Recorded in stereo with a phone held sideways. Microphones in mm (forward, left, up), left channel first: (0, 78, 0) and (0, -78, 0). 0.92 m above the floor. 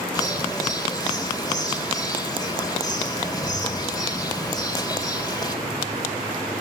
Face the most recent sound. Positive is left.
turn(degrees=25)  # may be behind; listen again after turning